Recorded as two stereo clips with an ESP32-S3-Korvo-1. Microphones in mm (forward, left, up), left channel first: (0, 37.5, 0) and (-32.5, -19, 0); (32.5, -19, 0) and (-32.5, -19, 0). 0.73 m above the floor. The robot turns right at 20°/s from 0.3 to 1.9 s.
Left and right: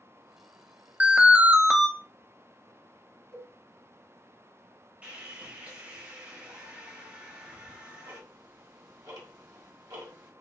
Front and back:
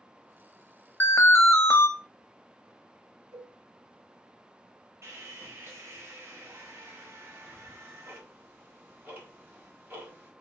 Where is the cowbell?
135° right, 2 m.